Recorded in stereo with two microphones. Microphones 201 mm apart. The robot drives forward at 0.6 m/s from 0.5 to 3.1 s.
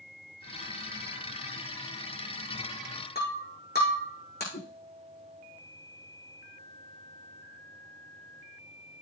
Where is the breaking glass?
55° left (ahead or behind), 7 m.